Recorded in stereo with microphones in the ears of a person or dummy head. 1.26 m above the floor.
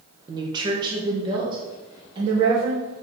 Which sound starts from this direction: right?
A woman speaking, at 0.3 s.